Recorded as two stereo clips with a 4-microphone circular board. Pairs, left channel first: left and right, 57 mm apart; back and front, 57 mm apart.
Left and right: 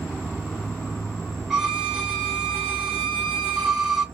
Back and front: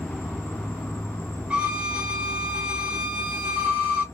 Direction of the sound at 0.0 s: 175° left.